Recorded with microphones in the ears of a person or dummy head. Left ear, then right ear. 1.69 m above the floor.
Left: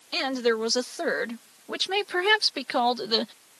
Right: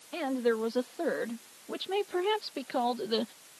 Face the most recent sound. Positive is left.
turn(degrees=35)  # may be behind; listen again after turning